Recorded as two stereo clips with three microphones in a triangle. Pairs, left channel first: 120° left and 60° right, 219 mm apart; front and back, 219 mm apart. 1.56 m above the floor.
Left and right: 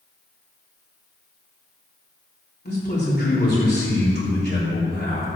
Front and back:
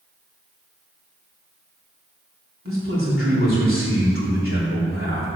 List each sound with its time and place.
2.6 s a man speaking: 160° left, 3.5 m